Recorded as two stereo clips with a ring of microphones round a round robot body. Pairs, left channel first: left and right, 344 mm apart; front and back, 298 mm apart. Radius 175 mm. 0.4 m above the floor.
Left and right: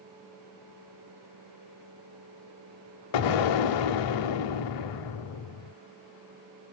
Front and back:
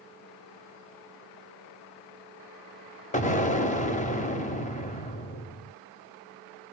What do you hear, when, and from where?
3.1 s an explosion: 65° left, 1.1 m